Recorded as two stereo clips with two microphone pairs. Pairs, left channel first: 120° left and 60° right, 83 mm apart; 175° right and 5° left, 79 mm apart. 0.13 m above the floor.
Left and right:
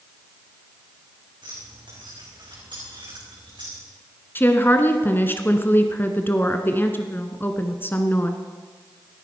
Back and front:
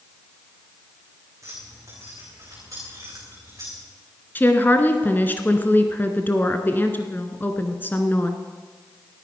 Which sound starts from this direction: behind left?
A woman speaking, at 4.3 s.